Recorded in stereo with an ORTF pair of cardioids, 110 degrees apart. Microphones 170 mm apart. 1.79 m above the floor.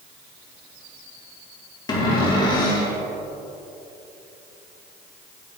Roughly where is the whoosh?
I don't hear a whoosh.